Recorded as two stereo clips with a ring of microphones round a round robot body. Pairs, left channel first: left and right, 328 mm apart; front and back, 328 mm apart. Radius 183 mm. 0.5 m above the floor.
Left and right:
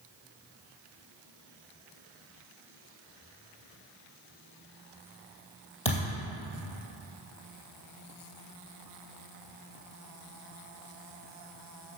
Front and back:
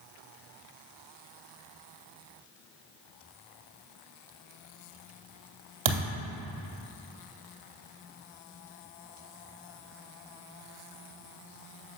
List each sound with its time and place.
5.8 s a thud: 160° left, 2 m